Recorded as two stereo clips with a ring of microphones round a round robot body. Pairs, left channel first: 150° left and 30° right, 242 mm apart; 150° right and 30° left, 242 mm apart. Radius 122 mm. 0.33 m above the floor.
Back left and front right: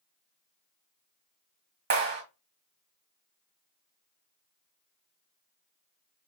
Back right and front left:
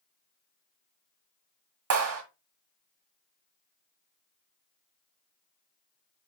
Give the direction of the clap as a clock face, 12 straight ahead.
12 o'clock.